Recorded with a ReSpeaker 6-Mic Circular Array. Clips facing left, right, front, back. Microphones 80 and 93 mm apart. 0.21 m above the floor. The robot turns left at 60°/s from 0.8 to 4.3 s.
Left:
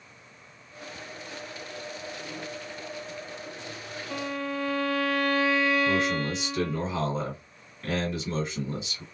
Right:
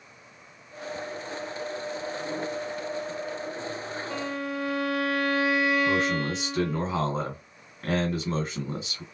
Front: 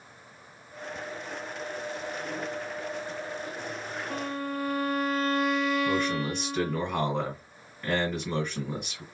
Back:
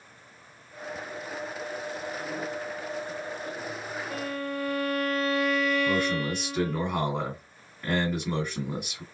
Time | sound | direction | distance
4.1 | a violin | 10° right | 1.6 m
5.8 | a man speaking | 95° right | 1.6 m